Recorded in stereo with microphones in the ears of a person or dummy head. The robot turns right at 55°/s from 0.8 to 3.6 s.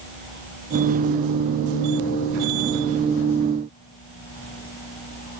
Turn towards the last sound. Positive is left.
No sound to turn to.